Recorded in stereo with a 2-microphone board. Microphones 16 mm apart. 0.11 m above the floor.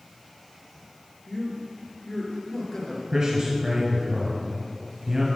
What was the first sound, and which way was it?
A man speaking, 45° left (ahead or behind).